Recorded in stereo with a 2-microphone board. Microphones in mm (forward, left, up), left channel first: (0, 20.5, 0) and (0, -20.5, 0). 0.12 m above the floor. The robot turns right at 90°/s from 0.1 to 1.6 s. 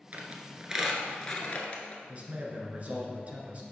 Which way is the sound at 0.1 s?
40° right (ahead or behind).